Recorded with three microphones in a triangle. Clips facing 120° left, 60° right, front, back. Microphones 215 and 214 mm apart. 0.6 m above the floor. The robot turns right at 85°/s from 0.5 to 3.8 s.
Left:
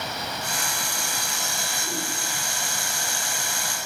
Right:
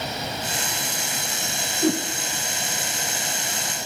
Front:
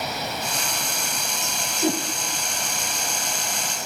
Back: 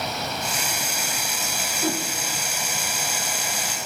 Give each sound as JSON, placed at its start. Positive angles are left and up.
{"t": 1.8, "sound": "a whoosh", "azimuth_deg": -75, "distance_m": 4.5}